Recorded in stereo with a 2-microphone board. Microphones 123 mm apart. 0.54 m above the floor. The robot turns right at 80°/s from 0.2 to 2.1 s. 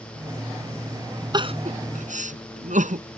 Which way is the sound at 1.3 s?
35° right (ahead or behind).